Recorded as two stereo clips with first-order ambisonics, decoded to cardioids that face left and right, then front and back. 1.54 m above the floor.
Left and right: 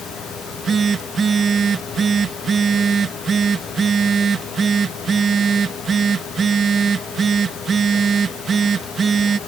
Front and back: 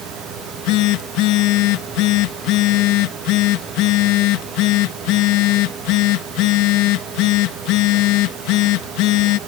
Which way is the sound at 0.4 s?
20° right.